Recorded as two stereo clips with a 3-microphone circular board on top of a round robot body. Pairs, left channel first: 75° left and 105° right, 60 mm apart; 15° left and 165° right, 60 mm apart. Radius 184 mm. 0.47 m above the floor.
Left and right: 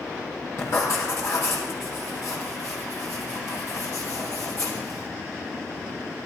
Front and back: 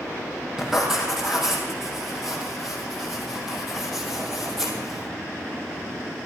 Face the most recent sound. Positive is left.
turn(degrees=110)